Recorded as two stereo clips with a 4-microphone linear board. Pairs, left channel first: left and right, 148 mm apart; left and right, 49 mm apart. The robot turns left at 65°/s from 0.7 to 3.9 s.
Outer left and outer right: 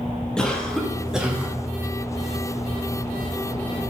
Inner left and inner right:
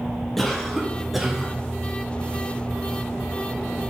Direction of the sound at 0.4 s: 5° left (ahead or behind).